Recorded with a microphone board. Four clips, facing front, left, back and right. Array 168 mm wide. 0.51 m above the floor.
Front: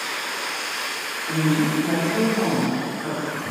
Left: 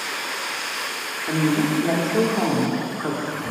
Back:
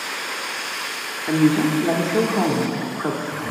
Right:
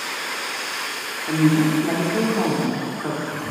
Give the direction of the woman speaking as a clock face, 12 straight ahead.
6 o'clock.